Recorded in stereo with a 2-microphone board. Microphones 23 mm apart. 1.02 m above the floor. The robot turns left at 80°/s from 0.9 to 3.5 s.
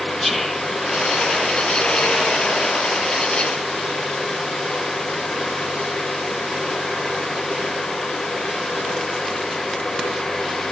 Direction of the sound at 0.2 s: 15° left (ahead or behind).